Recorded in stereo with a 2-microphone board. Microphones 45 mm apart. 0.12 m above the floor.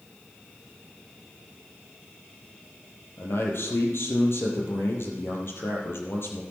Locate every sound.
3.2 s a man speaking: 65° left (ahead or behind), 3 m